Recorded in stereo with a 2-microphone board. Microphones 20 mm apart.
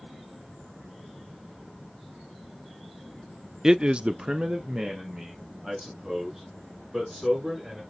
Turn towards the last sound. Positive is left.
turn(degrees=-35)  # may be behind; listen again after turning